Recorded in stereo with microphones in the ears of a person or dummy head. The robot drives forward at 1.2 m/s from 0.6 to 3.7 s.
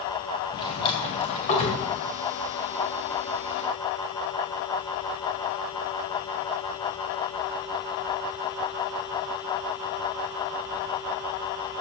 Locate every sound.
0.5 s a drawer: 25° left (ahead or behind), 3 m; by 1.8 s 35° left (ahead or behind), 2.0 m